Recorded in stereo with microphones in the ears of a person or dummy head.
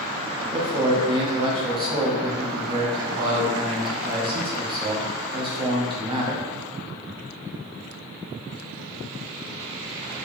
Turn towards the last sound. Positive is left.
turn(degrees=-25)  # may be behind; listen again after turning